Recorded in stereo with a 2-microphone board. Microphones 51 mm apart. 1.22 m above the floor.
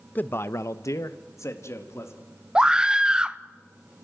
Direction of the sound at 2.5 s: 15° right (ahead or behind).